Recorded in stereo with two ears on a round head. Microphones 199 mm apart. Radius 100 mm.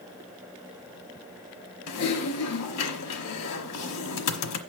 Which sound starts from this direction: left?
Typing on a keyboard, at 1.9 s.